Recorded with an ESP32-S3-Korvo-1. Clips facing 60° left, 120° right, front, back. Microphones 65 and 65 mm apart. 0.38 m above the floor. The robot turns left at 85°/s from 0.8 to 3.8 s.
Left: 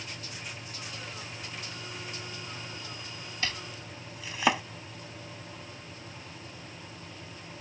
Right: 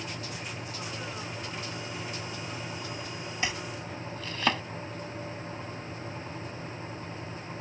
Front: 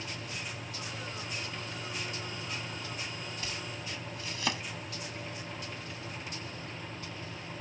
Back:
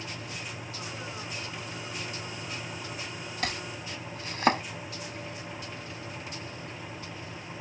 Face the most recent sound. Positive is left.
turn(degrees=135)